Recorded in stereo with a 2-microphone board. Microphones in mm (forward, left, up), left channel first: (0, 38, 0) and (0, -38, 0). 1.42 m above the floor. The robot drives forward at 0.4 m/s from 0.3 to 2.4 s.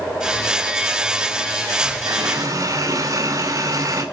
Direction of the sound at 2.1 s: 45° right (ahead or behind).